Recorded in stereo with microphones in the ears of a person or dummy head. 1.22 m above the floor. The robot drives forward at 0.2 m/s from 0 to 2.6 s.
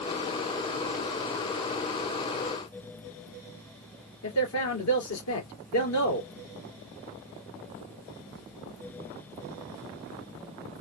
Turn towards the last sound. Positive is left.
turn(degrees=85)